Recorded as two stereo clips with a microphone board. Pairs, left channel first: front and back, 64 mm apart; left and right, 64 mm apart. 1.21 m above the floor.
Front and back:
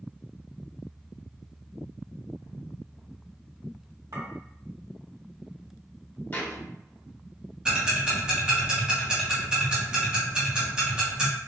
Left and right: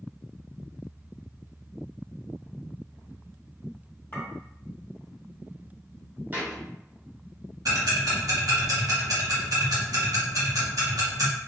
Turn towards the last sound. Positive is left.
turn(degrees=-105)